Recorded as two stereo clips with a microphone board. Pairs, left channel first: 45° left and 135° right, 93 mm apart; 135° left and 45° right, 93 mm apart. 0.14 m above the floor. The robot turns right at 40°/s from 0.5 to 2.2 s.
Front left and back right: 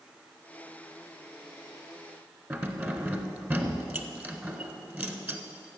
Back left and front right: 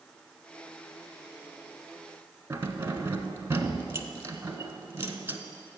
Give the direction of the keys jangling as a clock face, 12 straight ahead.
3 o'clock.